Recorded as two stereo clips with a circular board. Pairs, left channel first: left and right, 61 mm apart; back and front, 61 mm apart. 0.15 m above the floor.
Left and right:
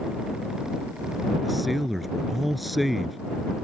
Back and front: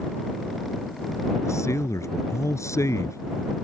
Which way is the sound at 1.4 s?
Straight behind.